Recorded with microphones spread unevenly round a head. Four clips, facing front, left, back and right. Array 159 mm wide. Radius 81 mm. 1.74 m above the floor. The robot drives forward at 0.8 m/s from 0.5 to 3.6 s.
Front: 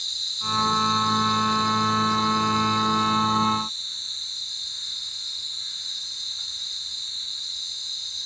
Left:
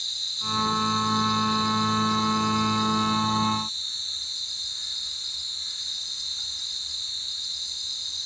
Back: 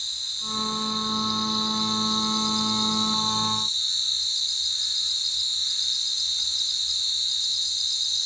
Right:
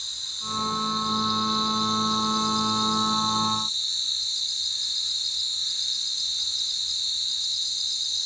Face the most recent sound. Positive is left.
turn(degrees=-150)